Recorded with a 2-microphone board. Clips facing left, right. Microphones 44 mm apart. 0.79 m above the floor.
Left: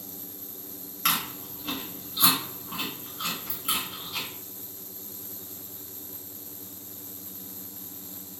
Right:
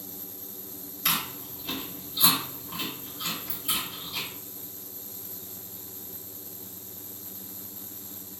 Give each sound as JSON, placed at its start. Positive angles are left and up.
{"t": 1.1, "sound": "chewing", "side_deg": 60, "distance_m": 1.2}